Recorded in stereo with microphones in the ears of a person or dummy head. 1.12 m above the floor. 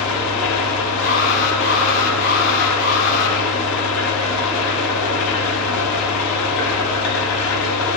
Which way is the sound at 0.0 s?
80° left.